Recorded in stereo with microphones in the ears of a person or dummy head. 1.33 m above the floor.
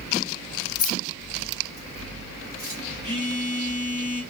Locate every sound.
0.8 s keys jangling: 40° left (ahead or behind), 0.8 m; by 2.8 s 30° left (ahead or behind), 2 m
3.0 s a phone buzzing: 40° left (ahead or behind), 1.5 m